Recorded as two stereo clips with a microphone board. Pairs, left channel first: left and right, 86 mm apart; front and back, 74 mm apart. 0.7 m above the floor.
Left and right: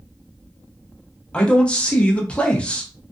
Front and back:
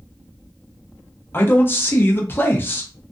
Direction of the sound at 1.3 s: 25° left.